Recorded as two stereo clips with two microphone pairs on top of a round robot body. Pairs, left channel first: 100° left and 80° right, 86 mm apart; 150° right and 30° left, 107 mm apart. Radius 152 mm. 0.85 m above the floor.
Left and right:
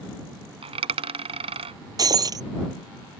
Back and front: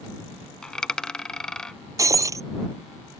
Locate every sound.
0.6 s a dropped coin: 65° right
2.0 s breaking glass: 30° right